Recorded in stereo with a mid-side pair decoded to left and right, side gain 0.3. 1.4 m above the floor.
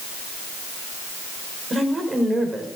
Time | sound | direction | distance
1.7 | a woman speaking | 45° right | 5.5 m